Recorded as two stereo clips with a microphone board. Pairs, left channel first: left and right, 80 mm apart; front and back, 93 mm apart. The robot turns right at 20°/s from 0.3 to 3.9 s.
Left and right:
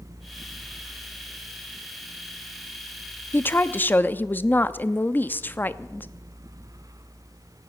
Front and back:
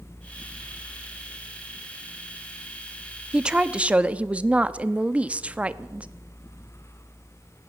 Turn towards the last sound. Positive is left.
turn(degrees=125)